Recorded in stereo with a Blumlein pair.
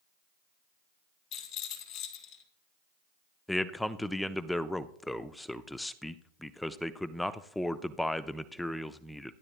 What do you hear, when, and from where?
1.3 s a rattle: 45° left, 2.5 m
3.5 s a man speaking: 5° left, 0.6 m